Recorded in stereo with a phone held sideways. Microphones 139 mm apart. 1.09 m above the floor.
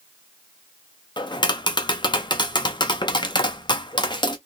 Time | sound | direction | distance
1.2 | tapping | 30° left (ahead or behind) | 0.5 m